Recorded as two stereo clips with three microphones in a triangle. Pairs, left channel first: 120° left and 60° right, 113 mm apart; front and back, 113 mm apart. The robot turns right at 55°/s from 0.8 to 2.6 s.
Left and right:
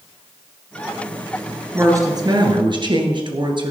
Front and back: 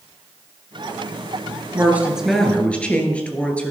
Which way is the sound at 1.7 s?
120° right.